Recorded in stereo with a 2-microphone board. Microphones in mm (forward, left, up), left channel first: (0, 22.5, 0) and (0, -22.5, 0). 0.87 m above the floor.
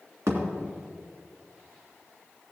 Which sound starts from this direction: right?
A thud, at 0.3 s.